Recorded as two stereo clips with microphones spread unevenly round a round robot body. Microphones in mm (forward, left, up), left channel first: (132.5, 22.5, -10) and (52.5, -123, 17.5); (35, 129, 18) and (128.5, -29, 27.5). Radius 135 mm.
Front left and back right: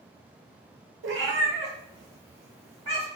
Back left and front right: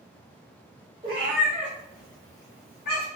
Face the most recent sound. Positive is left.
turn(degrees=165)